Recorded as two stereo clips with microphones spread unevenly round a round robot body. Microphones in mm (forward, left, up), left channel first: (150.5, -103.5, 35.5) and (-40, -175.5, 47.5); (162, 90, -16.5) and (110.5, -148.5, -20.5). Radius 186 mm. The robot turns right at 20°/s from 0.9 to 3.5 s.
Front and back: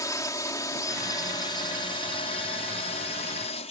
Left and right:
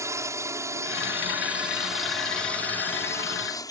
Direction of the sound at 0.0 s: 35° right.